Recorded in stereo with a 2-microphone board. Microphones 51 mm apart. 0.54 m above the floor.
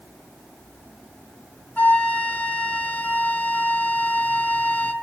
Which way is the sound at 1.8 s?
30° left (ahead or behind).